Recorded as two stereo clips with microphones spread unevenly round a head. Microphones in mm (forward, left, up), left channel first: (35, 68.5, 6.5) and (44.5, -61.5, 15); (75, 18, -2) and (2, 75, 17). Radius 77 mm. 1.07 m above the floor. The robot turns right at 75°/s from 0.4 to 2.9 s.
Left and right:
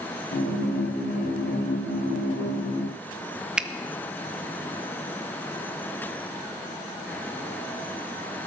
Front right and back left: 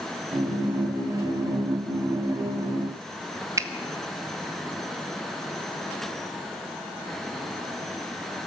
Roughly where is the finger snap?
Behind.